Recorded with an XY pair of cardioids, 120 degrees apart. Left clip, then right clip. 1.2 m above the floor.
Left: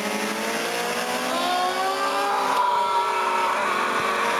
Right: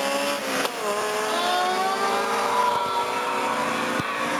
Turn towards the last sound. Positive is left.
turn(degrees=60)